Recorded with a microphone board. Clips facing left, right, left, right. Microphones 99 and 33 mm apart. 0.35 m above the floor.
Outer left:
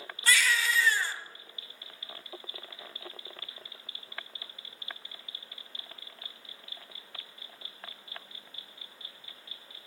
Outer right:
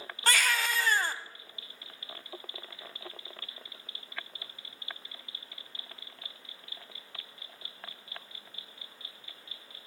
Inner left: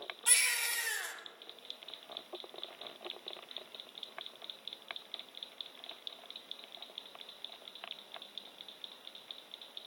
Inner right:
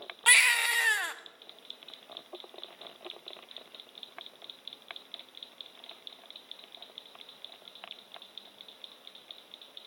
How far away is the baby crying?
About 0.6 m.